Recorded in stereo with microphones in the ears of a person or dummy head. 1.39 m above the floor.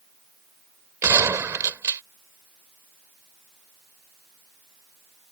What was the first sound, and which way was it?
A gunshot, 20° right (ahead or behind).